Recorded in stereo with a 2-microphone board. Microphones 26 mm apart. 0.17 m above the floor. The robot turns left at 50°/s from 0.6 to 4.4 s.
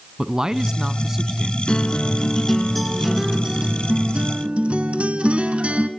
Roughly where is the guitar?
Ahead left.